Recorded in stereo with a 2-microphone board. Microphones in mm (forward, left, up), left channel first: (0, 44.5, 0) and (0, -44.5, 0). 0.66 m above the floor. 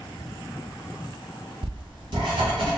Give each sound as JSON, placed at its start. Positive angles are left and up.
{"t": 1.6, "sound": "writing", "side_deg": -65, "distance_m": 2.5}